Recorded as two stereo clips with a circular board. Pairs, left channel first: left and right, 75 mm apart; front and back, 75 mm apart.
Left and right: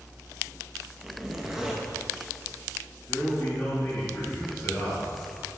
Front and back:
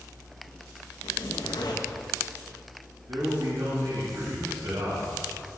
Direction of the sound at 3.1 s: 145° left.